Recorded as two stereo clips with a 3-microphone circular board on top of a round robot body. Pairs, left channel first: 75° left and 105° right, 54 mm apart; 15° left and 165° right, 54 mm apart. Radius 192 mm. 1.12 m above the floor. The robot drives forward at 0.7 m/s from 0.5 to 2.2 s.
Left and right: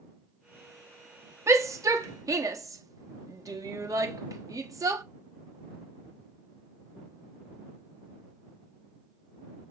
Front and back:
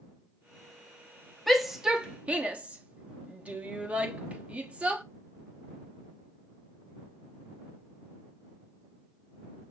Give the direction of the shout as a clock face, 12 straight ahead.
2 o'clock.